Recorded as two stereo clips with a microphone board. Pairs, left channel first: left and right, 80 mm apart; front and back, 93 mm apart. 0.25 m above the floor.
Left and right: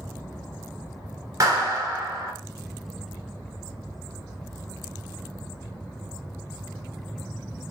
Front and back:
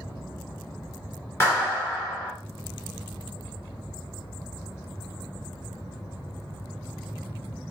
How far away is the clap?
About 1.5 m.